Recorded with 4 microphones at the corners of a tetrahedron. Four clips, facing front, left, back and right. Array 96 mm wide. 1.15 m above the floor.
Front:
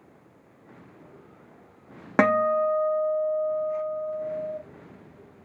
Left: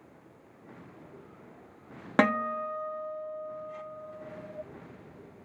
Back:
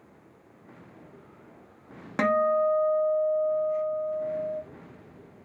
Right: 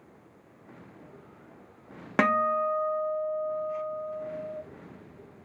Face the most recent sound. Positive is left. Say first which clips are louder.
# right 2 dB, front 2 dB
turn(degrees=10)